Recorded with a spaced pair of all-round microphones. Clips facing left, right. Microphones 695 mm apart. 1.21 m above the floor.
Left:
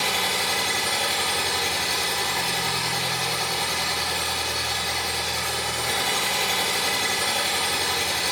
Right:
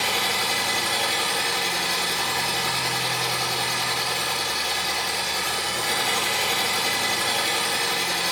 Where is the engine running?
50° left (ahead or behind), 3 m.